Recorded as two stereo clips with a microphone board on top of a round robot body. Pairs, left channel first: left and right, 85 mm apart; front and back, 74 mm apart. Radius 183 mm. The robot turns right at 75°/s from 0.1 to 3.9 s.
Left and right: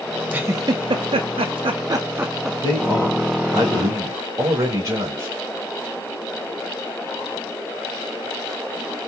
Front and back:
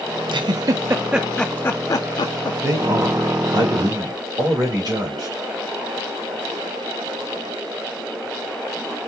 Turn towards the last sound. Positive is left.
turn(degrees=-150)